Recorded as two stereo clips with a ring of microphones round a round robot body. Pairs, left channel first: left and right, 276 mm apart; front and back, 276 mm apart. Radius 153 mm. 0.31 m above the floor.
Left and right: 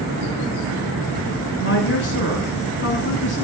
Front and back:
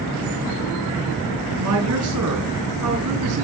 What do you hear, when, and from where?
1.6 s a woman speaking: 145° left, 3.5 m